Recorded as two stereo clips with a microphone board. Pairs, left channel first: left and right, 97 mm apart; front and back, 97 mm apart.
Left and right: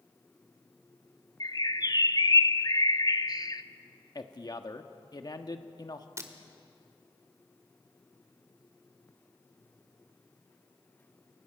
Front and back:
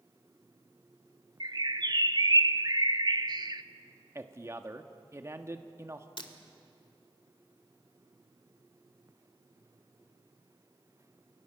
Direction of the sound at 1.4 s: 135° left.